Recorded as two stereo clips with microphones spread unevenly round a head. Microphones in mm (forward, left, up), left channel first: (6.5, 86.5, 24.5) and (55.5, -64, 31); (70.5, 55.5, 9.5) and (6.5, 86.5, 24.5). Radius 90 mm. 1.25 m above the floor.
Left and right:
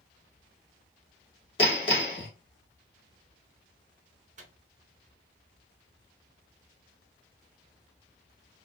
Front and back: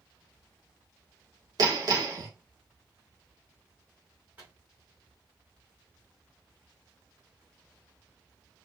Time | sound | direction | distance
1.6 | hammering | 170° left | 1.2 m
4.4 | a microwave | 125° right | 0.9 m